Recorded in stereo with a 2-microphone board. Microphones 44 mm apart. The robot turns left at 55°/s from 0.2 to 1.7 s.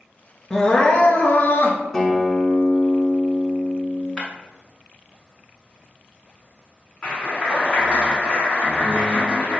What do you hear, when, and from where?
0.5 s crying: 170° left, 0.6 m; by 1.8 s 105° left, 0.6 m
1.9 s a guitar: 15° left (ahead or behind), 0.6 m
4.2 s breaking glass: 25° left (ahead or behind), 0.9 m
7.0 s a clap: 30° left (ahead or behind), 1.0 m